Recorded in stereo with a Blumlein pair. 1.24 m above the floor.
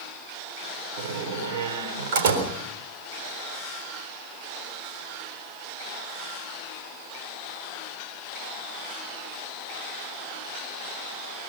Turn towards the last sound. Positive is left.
turn(degrees=-55)